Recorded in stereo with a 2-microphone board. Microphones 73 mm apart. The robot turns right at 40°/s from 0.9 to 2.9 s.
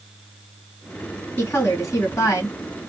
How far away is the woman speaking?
About 2 m.